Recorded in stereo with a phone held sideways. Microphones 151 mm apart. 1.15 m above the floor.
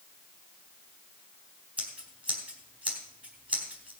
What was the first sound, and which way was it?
Scissors, 10° right (ahead or behind).